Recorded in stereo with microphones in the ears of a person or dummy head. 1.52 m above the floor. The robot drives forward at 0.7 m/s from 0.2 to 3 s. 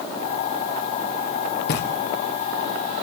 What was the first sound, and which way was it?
Knocking, 60° left (ahead or behind).